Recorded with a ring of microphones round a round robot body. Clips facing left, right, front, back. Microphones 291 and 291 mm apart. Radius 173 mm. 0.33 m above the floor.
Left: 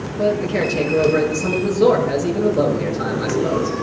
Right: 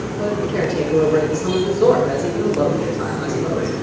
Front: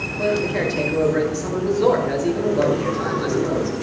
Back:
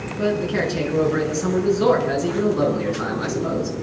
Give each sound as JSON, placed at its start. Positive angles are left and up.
{"t": 0.2, "sound": "a man speaking", "azimuth_deg": 180, "distance_m": 6.0}